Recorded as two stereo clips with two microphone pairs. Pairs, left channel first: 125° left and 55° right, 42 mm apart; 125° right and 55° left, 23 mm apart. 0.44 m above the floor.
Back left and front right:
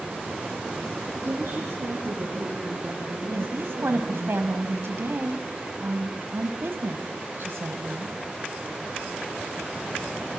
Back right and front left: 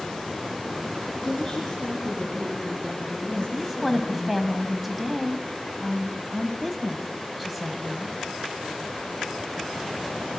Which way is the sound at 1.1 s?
50° right.